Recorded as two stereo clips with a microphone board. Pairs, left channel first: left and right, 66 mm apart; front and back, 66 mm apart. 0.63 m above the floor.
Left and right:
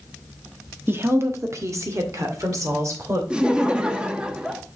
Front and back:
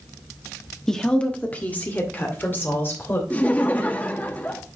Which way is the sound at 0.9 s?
75° right.